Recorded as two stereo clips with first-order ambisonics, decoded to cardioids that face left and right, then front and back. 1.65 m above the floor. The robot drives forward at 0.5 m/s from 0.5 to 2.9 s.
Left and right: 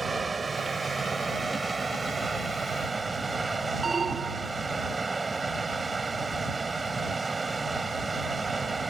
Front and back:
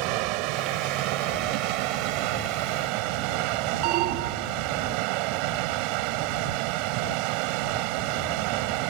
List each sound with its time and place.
0.0 s running water: 165° right; by 8.9 s 170° right
3.8 s an alarm: 165° right